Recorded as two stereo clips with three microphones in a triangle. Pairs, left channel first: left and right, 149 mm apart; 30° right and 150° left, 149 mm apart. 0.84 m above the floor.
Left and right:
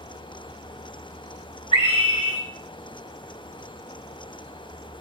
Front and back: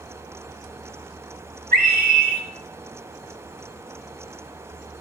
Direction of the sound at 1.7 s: 140° left.